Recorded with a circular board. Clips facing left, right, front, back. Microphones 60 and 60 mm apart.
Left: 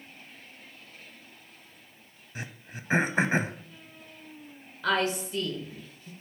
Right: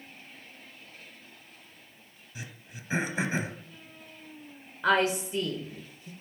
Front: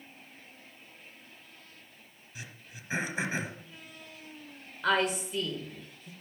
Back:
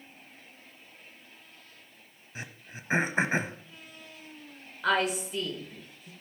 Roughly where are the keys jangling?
No keys jangling in this recording.